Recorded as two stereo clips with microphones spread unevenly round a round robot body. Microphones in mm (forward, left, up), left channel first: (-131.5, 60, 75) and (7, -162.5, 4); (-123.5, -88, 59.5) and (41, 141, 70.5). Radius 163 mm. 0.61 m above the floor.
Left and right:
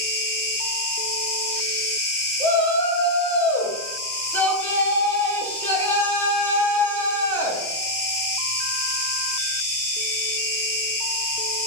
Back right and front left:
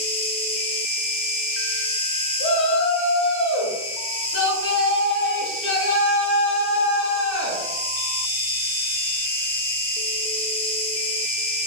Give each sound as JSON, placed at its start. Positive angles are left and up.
{"t": 0.0, "sound": "an insect", "azimuth_deg": 175, "distance_m": 0.9}
{"t": 2.4, "sound": "a shout", "azimuth_deg": -140, "distance_m": 0.8}